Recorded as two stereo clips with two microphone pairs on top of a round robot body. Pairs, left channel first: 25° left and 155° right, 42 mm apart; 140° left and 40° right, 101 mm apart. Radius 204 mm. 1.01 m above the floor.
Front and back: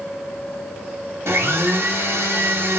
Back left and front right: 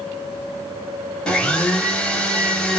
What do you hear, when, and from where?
1.3 s a blender: 140° right, 1.0 m